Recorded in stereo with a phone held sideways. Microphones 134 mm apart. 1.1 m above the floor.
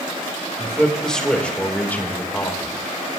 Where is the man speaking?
Centre (ahead or behind), 3.5 m; by 2.8 s 20° left (ahead or behind), 3.5 m.